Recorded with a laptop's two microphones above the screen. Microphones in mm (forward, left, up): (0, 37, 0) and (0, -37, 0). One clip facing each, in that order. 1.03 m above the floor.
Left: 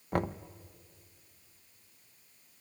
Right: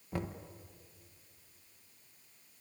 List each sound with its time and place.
0.1 s knocking: 55° left (ahead or behind), 0.7 m